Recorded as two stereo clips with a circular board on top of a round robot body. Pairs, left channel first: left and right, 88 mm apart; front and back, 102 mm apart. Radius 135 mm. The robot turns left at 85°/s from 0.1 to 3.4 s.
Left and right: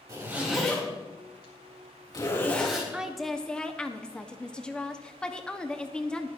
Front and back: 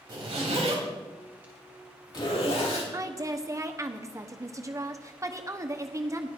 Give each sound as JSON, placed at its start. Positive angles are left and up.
{"t": 0.1, "sound": "a zipper", "azimuth_deg": -135, "distance_m": 3.5}
{"t": 2.9, "sound": "a woman speaking", "azimuth_deg": -160, "distance_m": 1.1}